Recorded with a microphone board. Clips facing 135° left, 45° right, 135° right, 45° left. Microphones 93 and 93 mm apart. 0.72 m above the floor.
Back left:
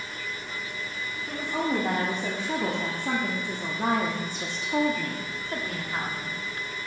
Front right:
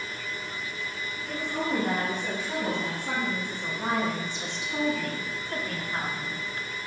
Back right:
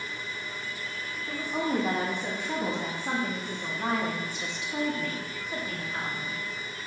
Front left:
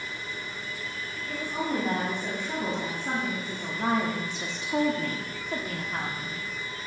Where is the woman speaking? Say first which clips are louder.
Back left 2 dB, back right 1 dB; 170° left, 1.8 m; by 6.4 s 55° left, 1.6 m.